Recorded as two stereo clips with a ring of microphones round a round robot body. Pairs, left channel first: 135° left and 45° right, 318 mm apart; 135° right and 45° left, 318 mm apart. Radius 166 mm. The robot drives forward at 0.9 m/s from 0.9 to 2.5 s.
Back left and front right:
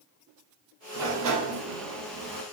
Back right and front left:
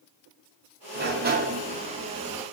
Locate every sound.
0.9 s a sliding door: 15° right, 2 m; by 2.4 s 35° right, 1.0 m